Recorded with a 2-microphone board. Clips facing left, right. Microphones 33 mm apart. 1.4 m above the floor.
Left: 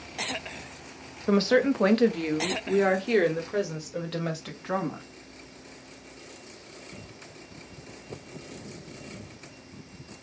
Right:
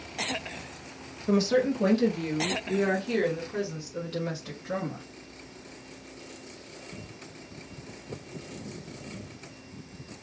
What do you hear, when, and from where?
1.3 s a woman speaking: 40° left (ahead or behind), 0.9 m; by 5.0 s 85° left, 2.5 m